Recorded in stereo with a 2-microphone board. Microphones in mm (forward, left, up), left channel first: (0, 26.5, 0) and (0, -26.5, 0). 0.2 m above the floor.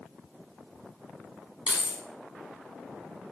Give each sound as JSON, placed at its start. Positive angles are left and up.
{"t": 1.7, "sound": "keys jangling", "side_deg": -20, "distance_m": 1.0}